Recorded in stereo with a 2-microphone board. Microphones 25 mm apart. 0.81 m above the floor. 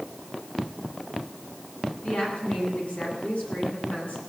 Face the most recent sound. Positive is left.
turn(degrees=55)  # may be behind; listen again after turning